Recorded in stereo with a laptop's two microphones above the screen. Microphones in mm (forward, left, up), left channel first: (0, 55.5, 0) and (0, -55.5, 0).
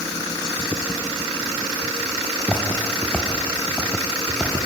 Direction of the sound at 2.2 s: 15° left (ahead or behind).